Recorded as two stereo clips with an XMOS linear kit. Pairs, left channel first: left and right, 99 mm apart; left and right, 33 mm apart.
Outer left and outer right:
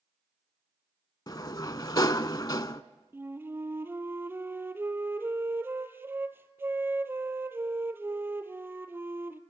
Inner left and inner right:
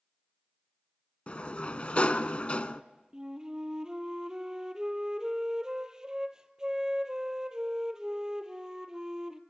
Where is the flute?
20° right (ahead or behind), 1.0 m.